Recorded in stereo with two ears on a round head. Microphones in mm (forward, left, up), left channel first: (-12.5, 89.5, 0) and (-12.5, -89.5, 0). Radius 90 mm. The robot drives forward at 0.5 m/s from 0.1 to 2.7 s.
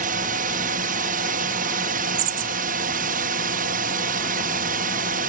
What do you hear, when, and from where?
0.0 s a drone: 40° right (ahead or behind)